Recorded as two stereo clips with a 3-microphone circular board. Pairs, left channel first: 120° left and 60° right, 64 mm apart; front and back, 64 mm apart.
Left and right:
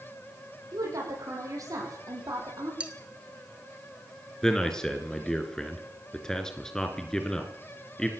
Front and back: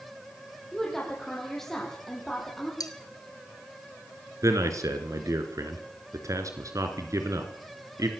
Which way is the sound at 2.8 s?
10° left.